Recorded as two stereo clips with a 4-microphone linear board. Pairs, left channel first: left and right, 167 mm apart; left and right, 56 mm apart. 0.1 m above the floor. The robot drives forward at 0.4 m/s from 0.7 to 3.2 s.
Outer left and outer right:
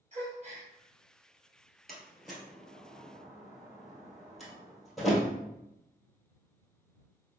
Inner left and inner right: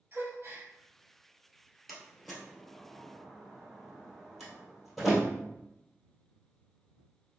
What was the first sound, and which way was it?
A gasp, 45° right (ahead or behind).